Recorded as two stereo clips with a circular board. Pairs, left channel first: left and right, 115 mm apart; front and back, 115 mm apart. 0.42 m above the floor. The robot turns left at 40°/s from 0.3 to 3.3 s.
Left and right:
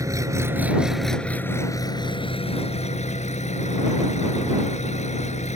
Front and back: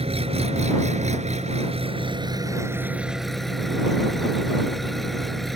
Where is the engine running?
150° right; by 5.6 s 90° left.